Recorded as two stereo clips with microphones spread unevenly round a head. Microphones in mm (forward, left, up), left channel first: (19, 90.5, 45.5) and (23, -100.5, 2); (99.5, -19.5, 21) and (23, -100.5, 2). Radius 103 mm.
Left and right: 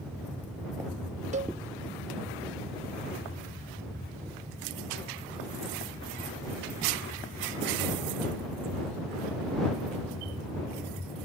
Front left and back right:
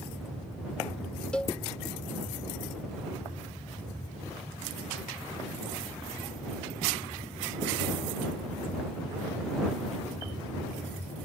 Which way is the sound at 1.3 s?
35° right.